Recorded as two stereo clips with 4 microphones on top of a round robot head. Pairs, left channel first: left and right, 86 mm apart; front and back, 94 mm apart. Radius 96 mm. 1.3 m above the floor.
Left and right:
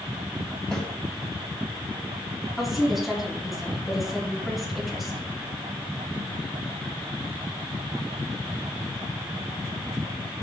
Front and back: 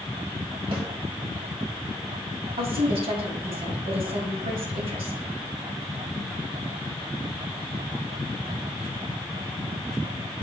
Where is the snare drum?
160° left, 1.7 m.